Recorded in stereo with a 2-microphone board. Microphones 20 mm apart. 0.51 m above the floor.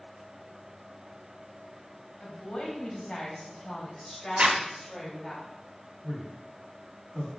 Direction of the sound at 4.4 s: 65° right (ahead or behind).